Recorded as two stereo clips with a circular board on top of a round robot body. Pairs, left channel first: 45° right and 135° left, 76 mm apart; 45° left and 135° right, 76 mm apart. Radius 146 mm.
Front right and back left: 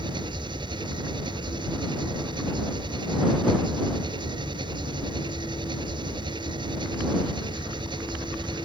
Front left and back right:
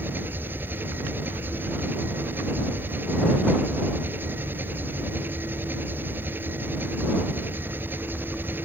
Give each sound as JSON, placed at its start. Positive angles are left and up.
{"t": 0.0, "sound": "an engine running", "azimuth_deg": 160}